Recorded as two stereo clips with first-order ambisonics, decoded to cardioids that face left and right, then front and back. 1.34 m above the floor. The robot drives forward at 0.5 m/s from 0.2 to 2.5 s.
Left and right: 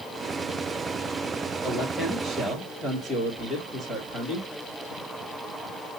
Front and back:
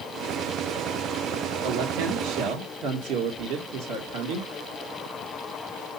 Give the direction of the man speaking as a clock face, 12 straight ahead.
6 o'clock.